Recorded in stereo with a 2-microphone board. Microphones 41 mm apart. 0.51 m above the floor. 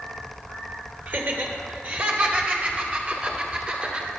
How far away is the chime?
I don't hear a chime.